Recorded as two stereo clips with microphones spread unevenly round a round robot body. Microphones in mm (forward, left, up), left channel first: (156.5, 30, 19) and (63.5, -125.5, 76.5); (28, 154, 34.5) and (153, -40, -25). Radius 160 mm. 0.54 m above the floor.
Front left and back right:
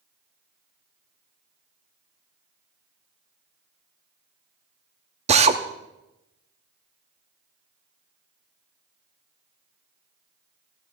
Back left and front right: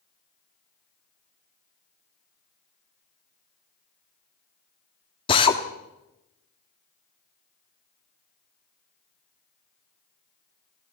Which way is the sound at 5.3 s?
165° right.